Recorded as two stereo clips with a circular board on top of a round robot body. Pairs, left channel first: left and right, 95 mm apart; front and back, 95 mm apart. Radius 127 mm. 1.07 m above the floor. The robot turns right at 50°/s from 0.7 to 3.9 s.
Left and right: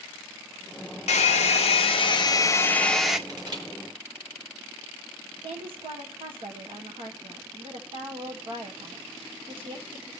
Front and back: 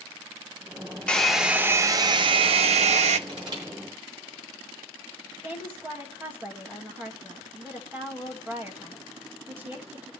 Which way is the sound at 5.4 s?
110° right.